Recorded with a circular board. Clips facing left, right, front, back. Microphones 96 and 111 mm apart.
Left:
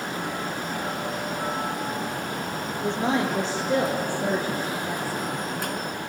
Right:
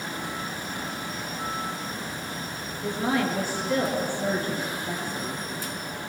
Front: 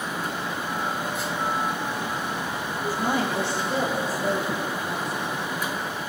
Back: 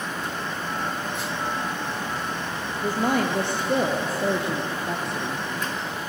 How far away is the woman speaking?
About 3 m.